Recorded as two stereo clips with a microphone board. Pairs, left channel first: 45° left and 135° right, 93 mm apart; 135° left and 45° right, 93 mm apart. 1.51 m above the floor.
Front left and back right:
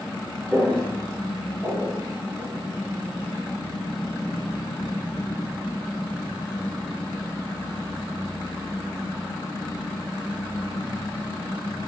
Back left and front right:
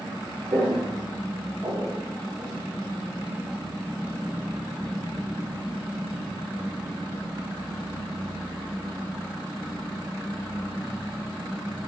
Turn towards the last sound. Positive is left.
turn(degrees=-105)